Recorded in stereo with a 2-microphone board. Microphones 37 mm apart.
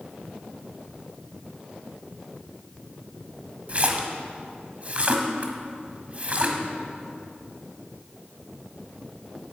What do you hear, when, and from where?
3.7 s a splash: 35° right (ahead or behind), 1.4 m